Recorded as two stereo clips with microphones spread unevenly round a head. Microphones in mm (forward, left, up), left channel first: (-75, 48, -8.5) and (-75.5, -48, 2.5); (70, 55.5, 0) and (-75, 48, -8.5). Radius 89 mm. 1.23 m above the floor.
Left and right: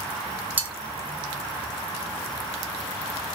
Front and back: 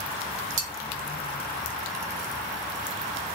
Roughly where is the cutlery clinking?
Behind right.